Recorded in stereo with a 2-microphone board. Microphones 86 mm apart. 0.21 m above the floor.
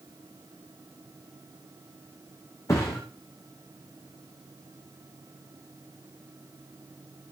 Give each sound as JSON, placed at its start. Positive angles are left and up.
{"t": 2.7, "sound": "a thud", "side_deg": 40, "distance_m": 5.0}